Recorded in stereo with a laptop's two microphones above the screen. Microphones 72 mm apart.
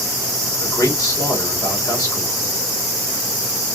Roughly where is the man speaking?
Left.